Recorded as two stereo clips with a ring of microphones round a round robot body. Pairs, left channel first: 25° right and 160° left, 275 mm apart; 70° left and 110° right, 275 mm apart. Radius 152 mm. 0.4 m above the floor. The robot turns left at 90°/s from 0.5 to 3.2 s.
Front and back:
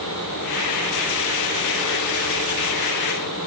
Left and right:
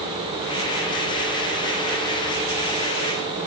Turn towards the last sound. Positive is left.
No sound to turn to.